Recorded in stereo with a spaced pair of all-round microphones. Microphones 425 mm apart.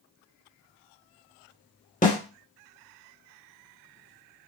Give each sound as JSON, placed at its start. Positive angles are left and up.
{"t": 2.0, "sound": "a snare drum", "side_deg": 20, "distance_m": 0.9}